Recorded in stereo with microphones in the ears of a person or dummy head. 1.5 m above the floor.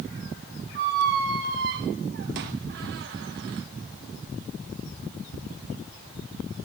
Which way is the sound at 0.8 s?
40° right (ahead or behind).